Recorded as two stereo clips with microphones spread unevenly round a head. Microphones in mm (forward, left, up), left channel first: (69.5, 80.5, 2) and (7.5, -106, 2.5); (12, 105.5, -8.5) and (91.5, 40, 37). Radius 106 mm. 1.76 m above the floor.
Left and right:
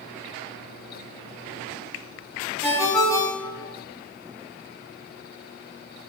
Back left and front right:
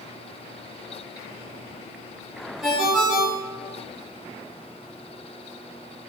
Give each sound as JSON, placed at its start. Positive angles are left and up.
{"t": 2.6, "sound": "a ringtone", "azimuth_deg": 10, "distance_m": 1.1}